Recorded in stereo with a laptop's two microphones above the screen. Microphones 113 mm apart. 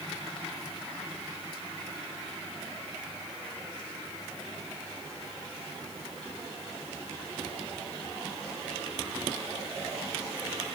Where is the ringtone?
I don't hear a ringtone.